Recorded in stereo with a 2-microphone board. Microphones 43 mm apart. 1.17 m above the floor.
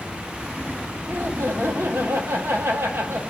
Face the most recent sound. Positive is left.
turn(degrees=-60)  # may be behind; listen again after turning